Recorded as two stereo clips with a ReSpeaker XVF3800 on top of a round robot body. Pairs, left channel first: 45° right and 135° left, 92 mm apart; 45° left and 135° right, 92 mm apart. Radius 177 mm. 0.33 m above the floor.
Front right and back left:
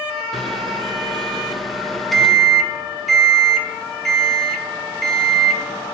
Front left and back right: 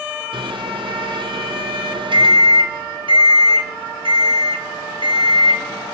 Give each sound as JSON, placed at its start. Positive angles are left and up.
{"t": 0.3, "sound": "a microwave", "azimuth_deg": -135, "distance_m": 1.4}